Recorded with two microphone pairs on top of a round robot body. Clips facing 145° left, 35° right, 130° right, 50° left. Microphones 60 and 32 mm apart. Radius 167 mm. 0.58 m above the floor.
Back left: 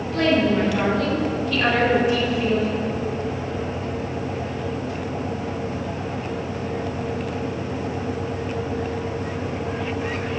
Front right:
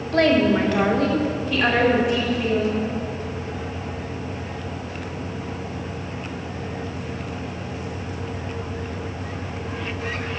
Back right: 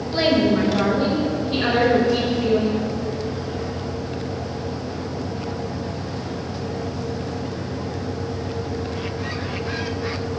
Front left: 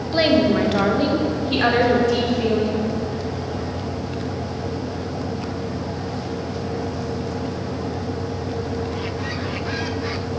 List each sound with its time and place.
0.1 s a woman speaking: 10° right, 2.0 m; by 2.8 s 70° left, 3 m